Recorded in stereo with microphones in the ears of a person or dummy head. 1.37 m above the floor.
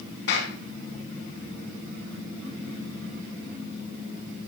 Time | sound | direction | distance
0.3 | a clap | 60° left (ahead or behind) | 9 m